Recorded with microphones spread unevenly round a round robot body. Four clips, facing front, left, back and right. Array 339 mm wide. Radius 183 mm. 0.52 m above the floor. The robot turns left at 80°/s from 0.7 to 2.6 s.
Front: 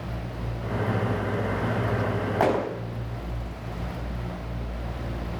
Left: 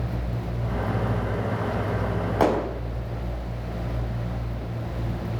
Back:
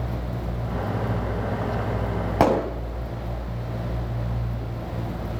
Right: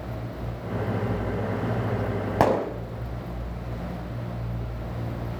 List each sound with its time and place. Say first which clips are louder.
2.4 s a gunshot: even, back 4 dB; 140° right, 4.5 m; by 2.6 s 155° right, 4.5 m